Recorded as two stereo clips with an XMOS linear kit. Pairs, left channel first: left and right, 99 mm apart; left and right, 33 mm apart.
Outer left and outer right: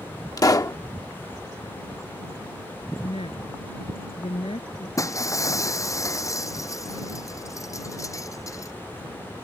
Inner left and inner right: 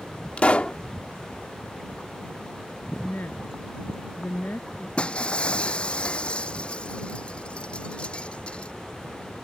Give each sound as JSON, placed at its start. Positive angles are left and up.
{"t": 0.4, "sound": "a pop", "side_deg": 40}
{"t": 3.0, "sound": "a woman speaking", "side_deg": 80}
{"t": 5.0, "sound": "breaking glass", "side_deg": 35}